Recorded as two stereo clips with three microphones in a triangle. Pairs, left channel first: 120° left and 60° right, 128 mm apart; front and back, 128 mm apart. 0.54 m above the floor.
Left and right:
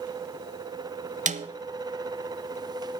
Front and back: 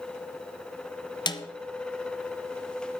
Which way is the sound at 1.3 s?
50° right.